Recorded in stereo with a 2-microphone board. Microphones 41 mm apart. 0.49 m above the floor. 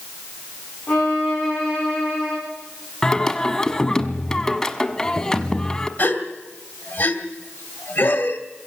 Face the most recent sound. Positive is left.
turn(degrees=40)  # may be behind; listen again after turning